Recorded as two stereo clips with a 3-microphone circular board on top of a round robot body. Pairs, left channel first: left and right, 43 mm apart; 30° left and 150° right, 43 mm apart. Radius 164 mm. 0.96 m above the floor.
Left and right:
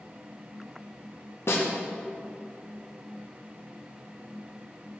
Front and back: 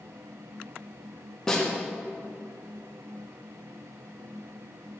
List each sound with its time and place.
1.5 s a snare drum: 105° left, 2.5 m